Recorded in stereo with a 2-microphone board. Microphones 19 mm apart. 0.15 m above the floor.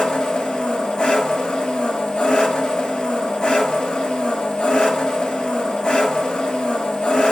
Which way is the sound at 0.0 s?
65° left (ahead or behind).